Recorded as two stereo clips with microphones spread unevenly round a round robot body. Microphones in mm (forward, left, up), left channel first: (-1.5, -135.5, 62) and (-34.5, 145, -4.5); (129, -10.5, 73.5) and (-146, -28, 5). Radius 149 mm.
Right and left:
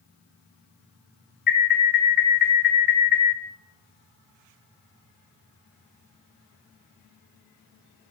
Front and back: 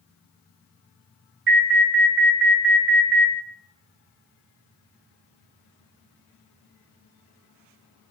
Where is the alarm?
145° right, 0.8 m.